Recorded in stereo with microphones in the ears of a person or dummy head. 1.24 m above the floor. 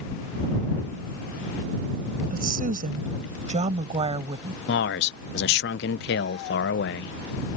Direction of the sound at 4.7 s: 55° left (ahead or behind).